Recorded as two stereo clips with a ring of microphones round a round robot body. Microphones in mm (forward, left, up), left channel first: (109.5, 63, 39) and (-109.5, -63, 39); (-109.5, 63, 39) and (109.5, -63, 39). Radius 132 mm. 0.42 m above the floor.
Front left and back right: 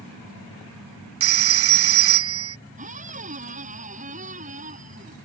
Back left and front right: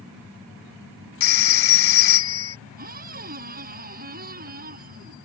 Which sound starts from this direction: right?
A squeak, at 2.8 s.